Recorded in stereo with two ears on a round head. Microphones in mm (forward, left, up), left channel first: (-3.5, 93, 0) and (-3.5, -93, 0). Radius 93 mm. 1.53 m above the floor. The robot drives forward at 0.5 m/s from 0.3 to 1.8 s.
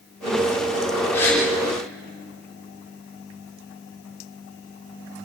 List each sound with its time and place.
1.1 s a gasp: 10° left (ahead or behind), 9 m